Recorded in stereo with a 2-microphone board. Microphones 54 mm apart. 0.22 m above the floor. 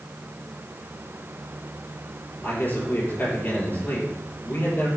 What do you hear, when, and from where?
2.4 s a man speaking: 35° left (ahead or behind), 4 m